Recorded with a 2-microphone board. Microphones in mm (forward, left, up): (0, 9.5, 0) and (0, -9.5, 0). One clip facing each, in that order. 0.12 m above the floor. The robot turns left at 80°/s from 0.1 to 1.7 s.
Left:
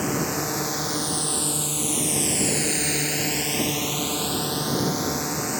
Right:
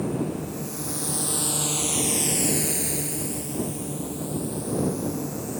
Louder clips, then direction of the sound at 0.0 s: Left 3 dB; 75° left (ahead or behind).